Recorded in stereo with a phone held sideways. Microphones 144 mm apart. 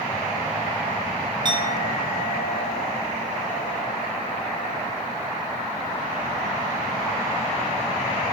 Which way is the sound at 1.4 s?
30° right (ahead or behind).